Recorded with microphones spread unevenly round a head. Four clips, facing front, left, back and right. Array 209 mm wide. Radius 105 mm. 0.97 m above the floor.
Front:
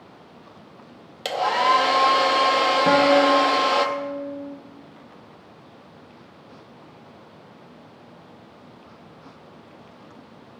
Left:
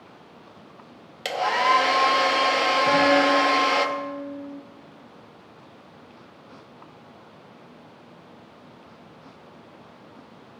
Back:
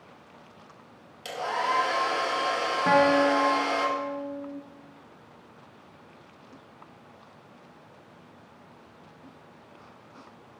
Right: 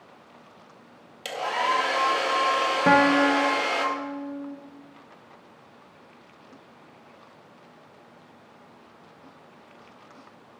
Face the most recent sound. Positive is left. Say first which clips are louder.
# right 1 dB, front 3 dB
turn(degrees=-65)